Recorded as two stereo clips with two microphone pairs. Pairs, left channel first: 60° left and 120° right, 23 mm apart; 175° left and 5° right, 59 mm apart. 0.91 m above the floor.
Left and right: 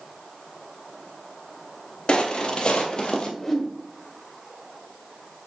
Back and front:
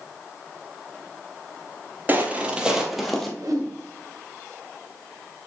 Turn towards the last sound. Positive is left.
turn(degrees=-15)